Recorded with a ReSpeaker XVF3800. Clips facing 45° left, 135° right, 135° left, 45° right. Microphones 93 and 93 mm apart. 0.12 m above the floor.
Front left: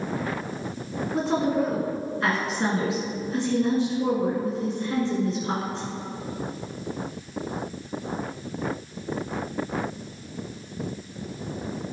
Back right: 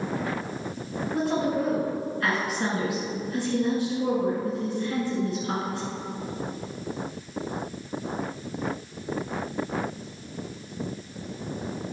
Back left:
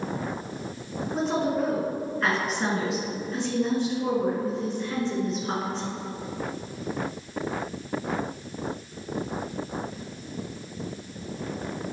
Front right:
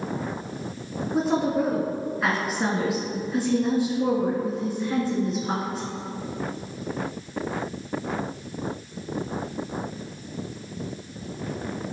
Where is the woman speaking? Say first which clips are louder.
Front left 2 dB, front right 3 dB; 35° left, 1.6 m.